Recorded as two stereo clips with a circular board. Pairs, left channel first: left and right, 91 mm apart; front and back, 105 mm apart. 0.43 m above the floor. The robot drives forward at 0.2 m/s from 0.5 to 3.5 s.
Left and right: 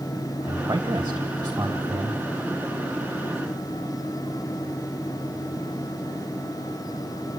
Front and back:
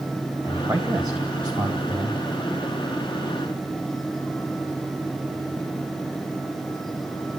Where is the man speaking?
125° right, 2.5 m; by 2.2 s 130° right, 2.5 m.